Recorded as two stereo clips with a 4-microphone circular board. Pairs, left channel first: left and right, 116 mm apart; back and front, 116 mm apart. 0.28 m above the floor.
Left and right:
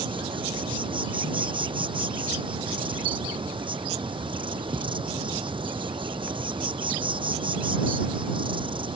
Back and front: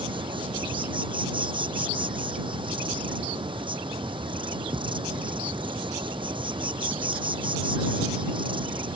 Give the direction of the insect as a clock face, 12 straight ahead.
1 o'clock.